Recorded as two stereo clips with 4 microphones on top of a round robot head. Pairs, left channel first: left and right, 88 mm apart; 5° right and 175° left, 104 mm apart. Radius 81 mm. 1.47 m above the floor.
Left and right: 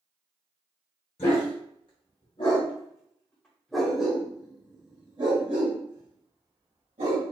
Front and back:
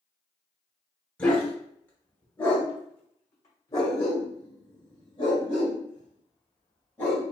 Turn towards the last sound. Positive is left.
turn(degrees=-70)